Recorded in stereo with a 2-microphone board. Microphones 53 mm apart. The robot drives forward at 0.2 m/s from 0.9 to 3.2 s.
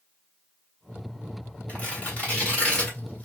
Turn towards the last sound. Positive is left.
turn(degrees=25)  # may be behind; listen again after turning